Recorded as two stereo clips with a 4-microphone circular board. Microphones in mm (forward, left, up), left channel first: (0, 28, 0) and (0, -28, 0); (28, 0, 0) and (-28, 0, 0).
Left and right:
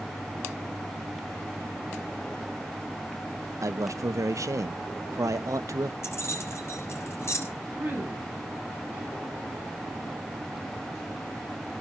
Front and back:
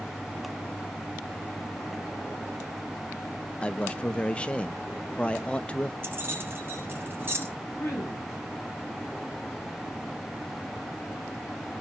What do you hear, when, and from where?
3.6 s a man speaking: 70° right, 0.9 m
6.0 s keys jangling: 135° left, 4.5 m
7.7 s a woman speaking: 35° right, 8.5 m